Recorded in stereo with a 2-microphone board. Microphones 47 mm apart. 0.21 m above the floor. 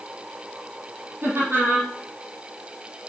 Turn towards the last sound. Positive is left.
turn(degrees=-70)  # may be behind; listen again after turning